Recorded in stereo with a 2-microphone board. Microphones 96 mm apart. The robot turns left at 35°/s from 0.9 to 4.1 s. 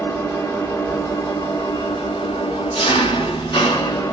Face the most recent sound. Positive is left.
turn(degrees=40)